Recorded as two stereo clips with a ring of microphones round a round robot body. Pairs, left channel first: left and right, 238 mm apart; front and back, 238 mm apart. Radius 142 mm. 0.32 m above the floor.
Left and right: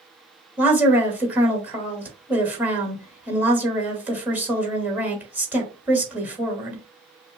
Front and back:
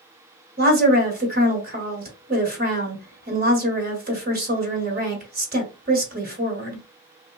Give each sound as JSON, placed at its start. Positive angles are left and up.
{"t": 0.6, "sound": "a woman speaking", "azimuth_deg": -170, "distance_m": 1.5}